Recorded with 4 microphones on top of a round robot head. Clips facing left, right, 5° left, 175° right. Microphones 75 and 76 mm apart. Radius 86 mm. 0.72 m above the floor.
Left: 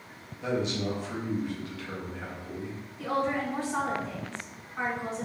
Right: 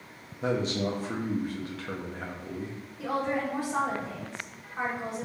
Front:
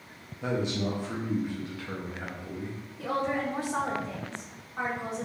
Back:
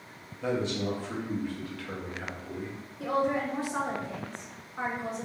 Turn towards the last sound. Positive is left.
turn(degrees=-15)